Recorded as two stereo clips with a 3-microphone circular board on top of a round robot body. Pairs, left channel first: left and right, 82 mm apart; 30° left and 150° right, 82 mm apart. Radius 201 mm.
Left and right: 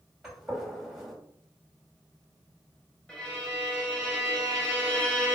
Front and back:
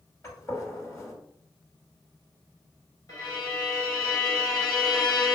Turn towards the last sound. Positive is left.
turn(degrees=20)